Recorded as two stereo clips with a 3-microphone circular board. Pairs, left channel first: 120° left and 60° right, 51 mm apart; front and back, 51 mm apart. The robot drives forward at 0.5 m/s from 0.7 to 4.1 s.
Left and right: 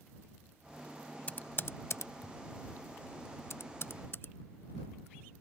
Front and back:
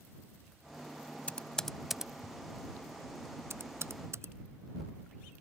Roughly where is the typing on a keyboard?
Ahead left.